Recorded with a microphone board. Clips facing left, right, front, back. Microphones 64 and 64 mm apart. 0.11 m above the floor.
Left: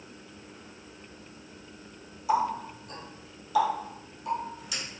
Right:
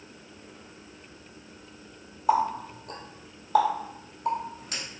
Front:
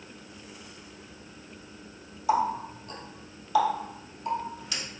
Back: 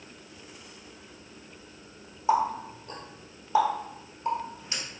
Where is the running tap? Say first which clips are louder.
Right 2 dB, back 1 dB; 120° right, 1.7 m.